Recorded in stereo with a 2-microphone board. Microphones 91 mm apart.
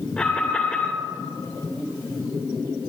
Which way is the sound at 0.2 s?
10° left (ahead or behind).